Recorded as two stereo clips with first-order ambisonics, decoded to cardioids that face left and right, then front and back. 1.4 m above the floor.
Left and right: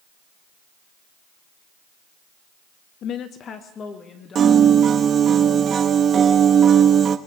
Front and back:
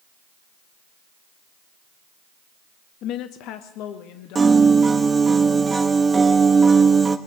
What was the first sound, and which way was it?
A woman speaking, 40° left.